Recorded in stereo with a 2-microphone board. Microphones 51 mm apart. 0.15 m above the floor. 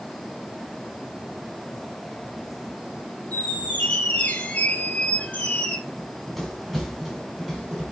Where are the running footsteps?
5° left (ahead or behind), 6.5 m; by 7.8 s 10° right (ahead or behind), 6.5 m.